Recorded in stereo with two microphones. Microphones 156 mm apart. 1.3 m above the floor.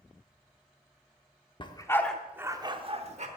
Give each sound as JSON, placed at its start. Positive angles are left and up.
{"t": 1.6, "sound": "a dog barking", "side_deg": 30, "distance_m": 1.0}